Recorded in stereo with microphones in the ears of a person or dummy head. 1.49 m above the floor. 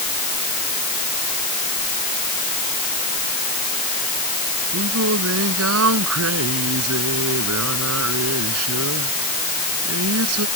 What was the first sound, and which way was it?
Singing, 85° right.